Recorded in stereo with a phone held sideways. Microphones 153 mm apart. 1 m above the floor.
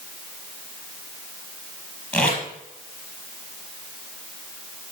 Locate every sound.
2.1 s tape being pulled: 5° left (ahead or behind), 5 m